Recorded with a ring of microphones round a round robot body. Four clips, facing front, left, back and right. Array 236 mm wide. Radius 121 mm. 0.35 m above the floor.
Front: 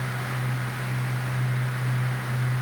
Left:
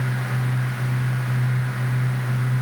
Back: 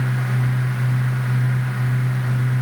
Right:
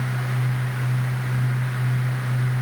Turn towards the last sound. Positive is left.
No sound to turn to.